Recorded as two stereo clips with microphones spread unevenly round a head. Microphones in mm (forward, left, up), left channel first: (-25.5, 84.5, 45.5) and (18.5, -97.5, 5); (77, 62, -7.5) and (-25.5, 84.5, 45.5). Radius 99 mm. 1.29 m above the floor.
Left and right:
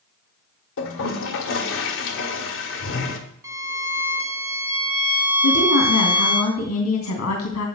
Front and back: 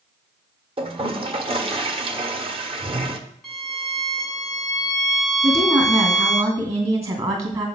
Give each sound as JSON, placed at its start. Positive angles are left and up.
{"t": 0.8, "sound": "a toilet flushing", "azimuth_deg": 125, "distance_m": 1.2}
{"t": 3.4, "sound": "a violin", "azimuth_deg": -165, "distance_m": 0.6}
{"t": 5.4, "sound": "a woman speaking", "azimuth_deg": 120, "distance_m": 2.5}